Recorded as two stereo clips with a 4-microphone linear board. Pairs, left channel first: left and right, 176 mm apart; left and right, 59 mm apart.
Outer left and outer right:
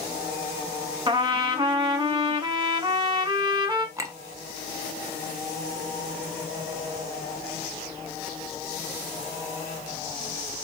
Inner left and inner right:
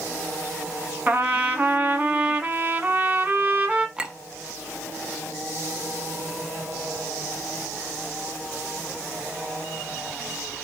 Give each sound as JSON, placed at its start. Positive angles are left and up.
{"t": 1.1, "sound": "a trumpet", "side_deg": -25, "distance_m": 0.8}
{"t": 4.0, "sound": "a clink", "side_deg": -15, "distance_m": 0.6}